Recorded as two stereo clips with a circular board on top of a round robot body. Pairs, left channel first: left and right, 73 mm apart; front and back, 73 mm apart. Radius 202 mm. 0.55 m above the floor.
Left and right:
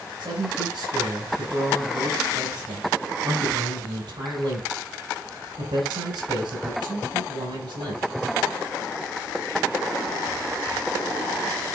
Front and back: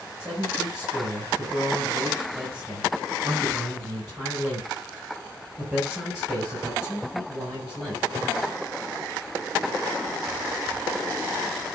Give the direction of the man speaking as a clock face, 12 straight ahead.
3 o'clock.